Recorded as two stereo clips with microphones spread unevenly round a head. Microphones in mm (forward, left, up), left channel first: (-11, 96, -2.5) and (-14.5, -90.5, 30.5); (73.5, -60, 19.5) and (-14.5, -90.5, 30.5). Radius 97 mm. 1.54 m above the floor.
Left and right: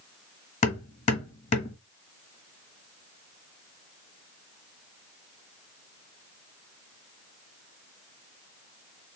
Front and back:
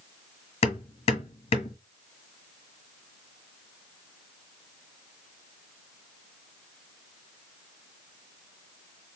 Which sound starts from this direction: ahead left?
Hammering, at 0.6 s.